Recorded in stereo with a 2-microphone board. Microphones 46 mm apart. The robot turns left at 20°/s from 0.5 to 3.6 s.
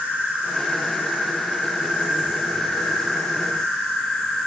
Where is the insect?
130° right, 1.2 m; by 4.5 s 170° left, 1.2 m.